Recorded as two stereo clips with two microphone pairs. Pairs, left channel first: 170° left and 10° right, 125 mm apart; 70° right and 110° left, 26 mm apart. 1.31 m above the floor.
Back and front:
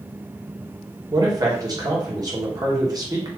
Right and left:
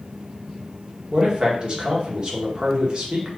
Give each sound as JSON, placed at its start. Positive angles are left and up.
{"t": 1.1, "sound": "a man speaking", "azimuth_deg": 50, "distance_m": 1.3}